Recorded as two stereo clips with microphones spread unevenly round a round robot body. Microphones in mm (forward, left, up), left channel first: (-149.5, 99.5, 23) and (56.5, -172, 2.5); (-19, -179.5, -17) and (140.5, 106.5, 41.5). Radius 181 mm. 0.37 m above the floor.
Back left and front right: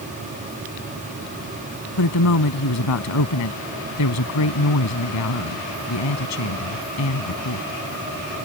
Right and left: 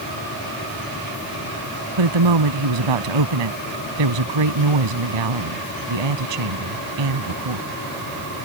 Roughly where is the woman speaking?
Left.